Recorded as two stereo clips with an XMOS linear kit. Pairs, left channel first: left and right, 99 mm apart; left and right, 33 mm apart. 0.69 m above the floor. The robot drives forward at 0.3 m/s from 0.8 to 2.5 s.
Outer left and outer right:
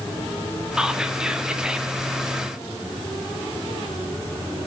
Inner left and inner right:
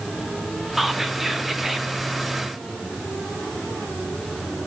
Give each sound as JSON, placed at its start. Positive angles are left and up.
{"t": 0.8, "sound": "whispering", "side_deg": -5, "distance_m": 1.5}